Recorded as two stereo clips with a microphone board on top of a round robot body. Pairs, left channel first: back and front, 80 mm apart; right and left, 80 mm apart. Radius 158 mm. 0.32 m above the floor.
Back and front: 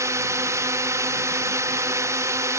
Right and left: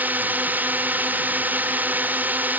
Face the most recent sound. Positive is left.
turn(degrees=30)